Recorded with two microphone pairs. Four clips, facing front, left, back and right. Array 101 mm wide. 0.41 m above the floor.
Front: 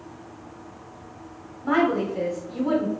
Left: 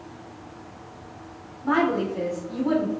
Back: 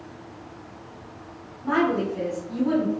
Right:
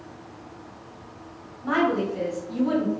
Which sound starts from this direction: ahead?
A woman speaking, at 1.6 s.